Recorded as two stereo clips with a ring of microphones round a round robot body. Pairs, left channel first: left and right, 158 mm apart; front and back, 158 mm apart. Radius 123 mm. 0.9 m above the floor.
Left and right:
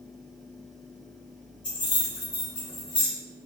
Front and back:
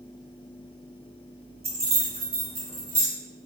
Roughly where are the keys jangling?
Behind left.